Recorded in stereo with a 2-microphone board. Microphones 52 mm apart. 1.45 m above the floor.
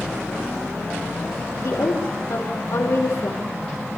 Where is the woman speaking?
85° left, 5 m.